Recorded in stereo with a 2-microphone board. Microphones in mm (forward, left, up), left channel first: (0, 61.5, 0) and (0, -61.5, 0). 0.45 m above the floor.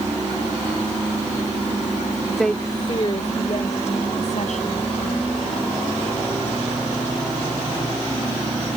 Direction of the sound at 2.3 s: 10° right (ahead or behind).